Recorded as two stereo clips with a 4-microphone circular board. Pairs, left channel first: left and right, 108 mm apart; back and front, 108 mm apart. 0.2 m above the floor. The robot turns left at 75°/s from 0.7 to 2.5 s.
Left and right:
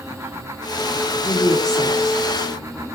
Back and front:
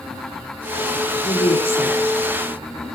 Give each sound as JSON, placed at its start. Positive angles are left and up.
{"t": 1.2, "sound": "a woman speaking", "azimuth_deg": 175, "distance_m": 10.0}